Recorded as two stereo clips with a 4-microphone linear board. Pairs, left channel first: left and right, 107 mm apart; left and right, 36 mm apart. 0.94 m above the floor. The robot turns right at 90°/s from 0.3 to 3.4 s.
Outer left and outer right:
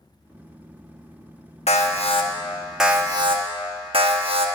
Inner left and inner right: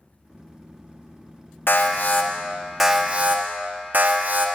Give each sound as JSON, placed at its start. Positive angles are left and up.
{"t": 1.7, "sound": "an alarm", "azimuth_deg": 85, "distance_m": 0.9}